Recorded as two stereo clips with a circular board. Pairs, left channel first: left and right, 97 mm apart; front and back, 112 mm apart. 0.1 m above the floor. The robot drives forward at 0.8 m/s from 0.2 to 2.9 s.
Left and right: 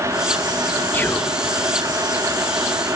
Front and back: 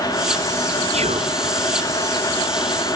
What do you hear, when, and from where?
0.9 s whispering: 160° left